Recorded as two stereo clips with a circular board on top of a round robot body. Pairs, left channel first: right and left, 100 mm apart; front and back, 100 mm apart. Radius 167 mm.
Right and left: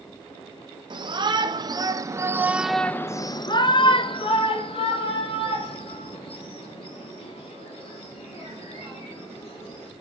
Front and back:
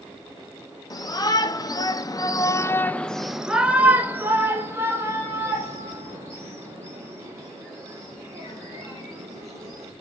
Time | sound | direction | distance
0.9 | a shout | 50° left | 1.8 m